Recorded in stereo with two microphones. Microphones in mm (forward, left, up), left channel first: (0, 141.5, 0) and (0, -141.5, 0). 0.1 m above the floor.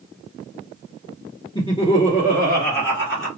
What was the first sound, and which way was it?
Laughter, 15° left (ahead or behind).